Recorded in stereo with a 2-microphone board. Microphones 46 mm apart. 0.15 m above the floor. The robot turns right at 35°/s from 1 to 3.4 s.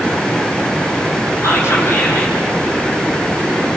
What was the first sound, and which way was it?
Whispering, 105° left.